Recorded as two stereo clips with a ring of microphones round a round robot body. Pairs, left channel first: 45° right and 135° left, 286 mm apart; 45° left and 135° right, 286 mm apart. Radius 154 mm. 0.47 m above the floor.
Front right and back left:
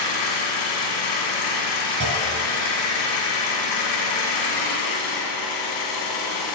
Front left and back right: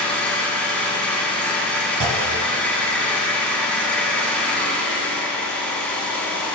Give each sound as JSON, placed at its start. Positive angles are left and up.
{"t": 0.0, "sound": "an engine running", "azimuth_deg": -40, "distance_m": 1.7}
{"t": 2.0, "sound": "a clunk", "azimuth_deg": 180, "distance_m": 1.0}